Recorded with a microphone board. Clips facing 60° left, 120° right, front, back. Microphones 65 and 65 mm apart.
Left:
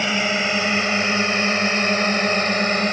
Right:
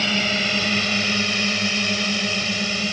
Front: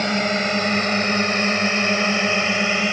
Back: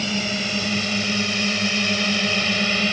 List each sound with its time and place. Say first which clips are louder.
0.0 s a drone: left 2 dB, front 5 dB; 5° right; by 2.9 s 65° left